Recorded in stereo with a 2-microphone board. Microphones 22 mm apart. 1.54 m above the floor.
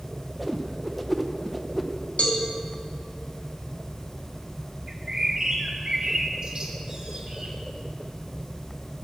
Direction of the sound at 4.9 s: 35° right (ahead or behind).